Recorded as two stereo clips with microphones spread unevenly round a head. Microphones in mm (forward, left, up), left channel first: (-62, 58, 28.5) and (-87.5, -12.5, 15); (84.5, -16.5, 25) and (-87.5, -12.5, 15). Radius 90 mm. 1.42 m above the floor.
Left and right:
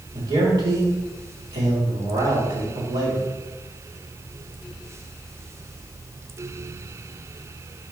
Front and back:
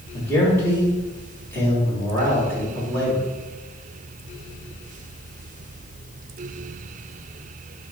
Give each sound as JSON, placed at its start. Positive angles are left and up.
{"t": 0.1, "sound": "a man speaking", "azimuth_deg": -80, "distance_m": 3.5}